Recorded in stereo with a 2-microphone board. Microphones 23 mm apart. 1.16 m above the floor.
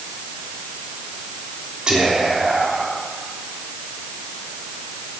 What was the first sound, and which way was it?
Whispering, 40° right (ahead or behind).